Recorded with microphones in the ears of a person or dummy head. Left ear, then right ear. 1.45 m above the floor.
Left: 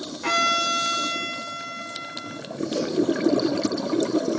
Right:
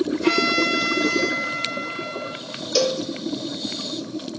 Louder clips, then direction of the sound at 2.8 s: Right 5 dB; 85° right.